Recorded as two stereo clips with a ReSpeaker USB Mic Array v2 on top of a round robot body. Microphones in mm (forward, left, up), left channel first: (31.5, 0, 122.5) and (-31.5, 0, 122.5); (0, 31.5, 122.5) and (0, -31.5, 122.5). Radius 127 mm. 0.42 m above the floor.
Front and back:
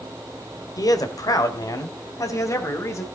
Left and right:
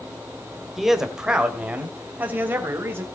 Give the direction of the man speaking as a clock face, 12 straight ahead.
12 o'clock.